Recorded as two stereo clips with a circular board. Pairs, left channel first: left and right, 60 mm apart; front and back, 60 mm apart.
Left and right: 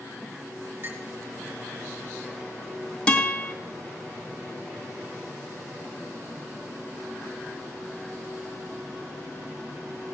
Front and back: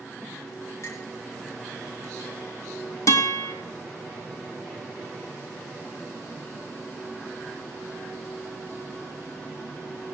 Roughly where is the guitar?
Ahead.